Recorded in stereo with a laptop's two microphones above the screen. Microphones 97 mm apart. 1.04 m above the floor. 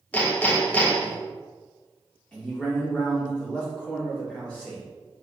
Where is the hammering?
15° left (ahead or behind), 0.6 m.